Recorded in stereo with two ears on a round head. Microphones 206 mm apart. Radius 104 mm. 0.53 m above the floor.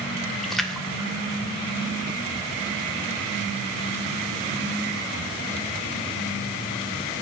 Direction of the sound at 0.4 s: Centre (ahead or behind).